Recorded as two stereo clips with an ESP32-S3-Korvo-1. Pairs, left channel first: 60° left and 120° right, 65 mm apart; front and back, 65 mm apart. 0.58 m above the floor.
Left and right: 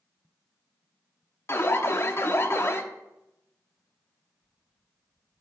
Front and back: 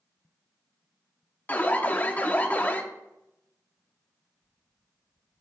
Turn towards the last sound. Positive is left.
turn(degrees=50)